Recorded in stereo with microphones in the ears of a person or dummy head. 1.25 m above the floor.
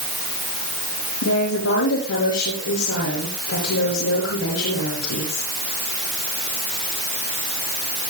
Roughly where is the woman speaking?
Left.